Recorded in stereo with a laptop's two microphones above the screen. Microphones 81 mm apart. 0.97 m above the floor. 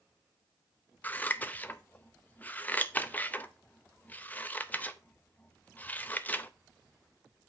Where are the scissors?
20° left (ahead or behind), 0.6 m.